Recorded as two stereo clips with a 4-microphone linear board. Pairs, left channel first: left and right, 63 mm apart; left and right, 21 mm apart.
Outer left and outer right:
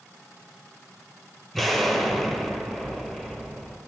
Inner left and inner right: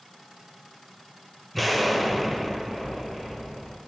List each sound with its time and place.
1.5 s an explosion: 5° left (ahead or behind), 1.0 m